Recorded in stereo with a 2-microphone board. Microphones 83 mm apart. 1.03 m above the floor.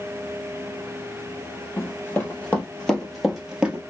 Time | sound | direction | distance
1.8 | running footsteps | 25° left (ahead or behind) | 1.5 m